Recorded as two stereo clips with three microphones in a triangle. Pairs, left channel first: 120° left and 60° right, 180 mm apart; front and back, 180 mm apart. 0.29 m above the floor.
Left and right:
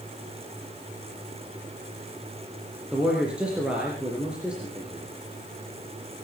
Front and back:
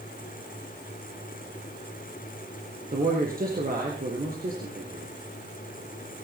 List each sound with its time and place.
2.9 s a man speaking: 145° right, 4 m